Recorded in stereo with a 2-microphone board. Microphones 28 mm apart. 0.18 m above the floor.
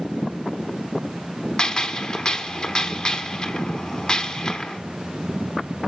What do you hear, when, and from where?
1.6 s a gunshot: 35° left (ahead or behind), 1.1 m